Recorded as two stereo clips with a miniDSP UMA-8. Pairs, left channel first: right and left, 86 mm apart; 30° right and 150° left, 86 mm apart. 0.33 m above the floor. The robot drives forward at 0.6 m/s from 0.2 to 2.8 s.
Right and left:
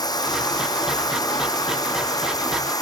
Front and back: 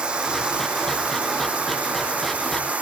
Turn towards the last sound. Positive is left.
turn(degrees=-135)